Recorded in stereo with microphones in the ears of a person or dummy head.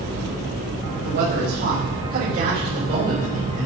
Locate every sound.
0.9 s a man speaking: 55° right (ahead or behind), 6 m; by 3.7 s 45° right (ahead or behind), 4 m